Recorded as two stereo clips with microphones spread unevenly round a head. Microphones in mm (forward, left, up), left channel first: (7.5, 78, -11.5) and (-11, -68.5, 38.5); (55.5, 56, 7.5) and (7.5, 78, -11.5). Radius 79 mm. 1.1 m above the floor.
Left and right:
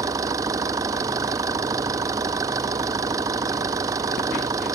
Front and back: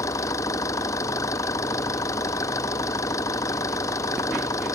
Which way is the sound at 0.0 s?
30° right.